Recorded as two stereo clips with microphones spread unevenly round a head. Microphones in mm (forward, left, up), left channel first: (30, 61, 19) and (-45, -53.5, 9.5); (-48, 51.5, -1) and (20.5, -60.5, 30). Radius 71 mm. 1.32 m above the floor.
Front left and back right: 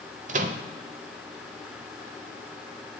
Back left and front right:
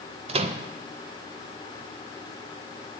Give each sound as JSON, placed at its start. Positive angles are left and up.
{"t": 0.3, "sound": "a microwave", "azimuth_deg": -90, "distance_m": 0.5}